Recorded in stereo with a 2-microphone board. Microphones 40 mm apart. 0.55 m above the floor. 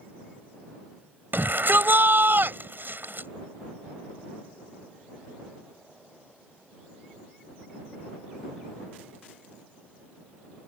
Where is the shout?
55° right (ahead or behind).